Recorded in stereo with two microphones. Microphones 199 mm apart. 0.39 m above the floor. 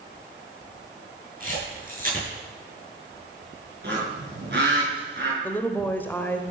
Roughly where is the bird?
Right.